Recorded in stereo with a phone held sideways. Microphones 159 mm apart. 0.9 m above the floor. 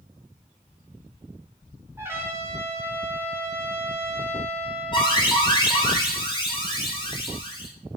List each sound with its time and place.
2.0 s a trumpet: 15° right (ahead or behind), 3.5 m
4.9 s an alarm: 30° left (ahead or behind), 4 m